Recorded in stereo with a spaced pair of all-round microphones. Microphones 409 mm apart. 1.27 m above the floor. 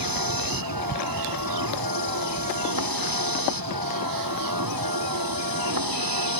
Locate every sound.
0.0 s a vehicle: 50° right (ahead or behind)